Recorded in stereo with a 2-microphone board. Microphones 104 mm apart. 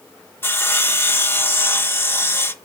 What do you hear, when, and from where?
0.4 s sawing: 20° left (ahead or behind), 0.7 m